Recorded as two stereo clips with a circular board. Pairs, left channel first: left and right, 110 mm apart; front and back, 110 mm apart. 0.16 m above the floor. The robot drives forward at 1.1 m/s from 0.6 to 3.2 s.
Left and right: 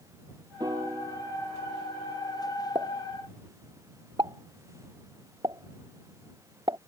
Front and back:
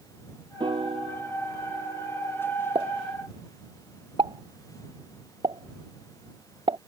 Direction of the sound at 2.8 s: 140° right.